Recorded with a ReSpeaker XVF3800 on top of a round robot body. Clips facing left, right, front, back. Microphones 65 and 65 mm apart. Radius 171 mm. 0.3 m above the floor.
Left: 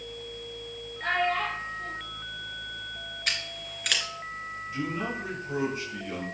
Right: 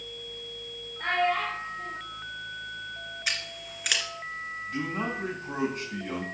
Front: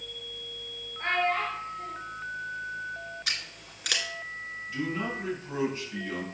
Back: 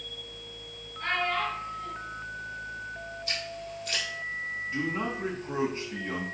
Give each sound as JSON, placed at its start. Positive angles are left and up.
{"t": 1.0, "sound": "a child speaking", "azimuth_deg": -60, "distance_m": 6.0}
{"t": 3.3, "sound": "scissors", "azimuth_deg": -5, "distance_m": 2.0}
{"t": 4.7, "sound": "a man speaking", "azimuth_deg": -120, "distance_m": 4.5}